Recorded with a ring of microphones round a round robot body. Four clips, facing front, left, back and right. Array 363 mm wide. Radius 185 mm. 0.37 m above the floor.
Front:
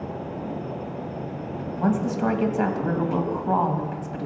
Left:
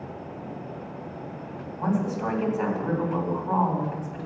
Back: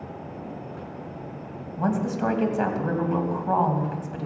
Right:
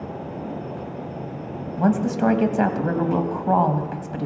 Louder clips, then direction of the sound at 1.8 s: Right 6 dB, front 1 dB; 90° right.